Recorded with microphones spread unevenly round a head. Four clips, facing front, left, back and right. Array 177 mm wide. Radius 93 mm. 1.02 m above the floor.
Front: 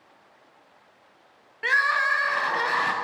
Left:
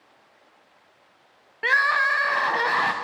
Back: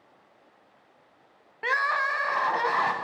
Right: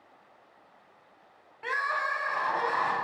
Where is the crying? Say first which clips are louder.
Left 8 dB, front 3 dB; 95° left, 0.6 m.